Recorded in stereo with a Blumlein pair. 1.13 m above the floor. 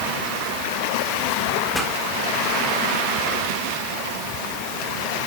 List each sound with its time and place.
1.7 s a pop: straight ahead, 3.5 m